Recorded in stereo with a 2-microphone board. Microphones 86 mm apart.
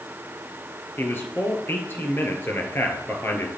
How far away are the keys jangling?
No keys jangling in this recording.